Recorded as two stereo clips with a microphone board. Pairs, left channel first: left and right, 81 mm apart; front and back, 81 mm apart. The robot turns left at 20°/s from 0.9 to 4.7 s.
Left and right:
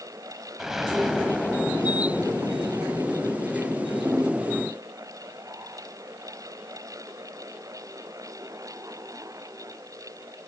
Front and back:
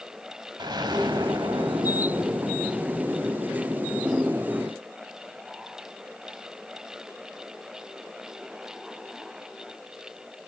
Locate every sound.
0.6 s an explosion: 175° right, 1.0 m; by 4.7 s 110° left, 1.0 m